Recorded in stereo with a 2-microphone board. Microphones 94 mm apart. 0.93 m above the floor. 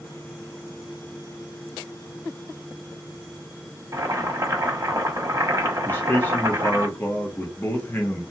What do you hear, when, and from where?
3.9 s boiling: 35° right (ahead or behind), 0.8 m
5.9 s a man speaking: 25° left (ahead or behind), 0.8 m